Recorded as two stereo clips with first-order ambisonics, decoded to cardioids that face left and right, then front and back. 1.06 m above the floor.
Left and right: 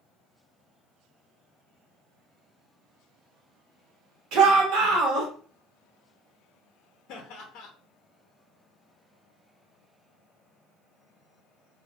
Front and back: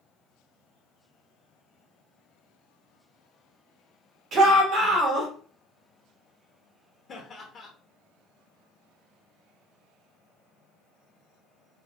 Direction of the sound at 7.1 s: 60° left.